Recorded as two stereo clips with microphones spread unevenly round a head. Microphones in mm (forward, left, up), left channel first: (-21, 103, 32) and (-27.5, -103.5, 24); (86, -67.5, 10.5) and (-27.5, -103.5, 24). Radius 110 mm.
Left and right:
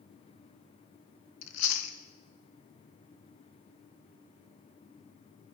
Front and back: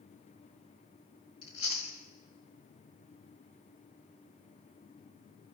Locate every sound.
1.4 s chewing: 90° left, 1.3 m